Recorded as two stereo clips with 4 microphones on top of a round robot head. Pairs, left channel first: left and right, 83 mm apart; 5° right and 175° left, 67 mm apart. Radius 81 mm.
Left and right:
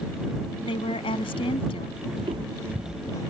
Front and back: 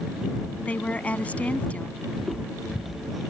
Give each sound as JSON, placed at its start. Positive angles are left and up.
{"t": 0.6, "sound": "a woman speaking", "azimuth_deg": 65}
{"t": 2.1, "sound": "footsteps", "azimuth_deg": -95}